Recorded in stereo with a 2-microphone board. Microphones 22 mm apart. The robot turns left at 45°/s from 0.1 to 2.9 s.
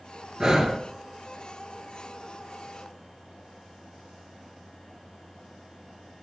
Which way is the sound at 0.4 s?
30° right (ahead or behind).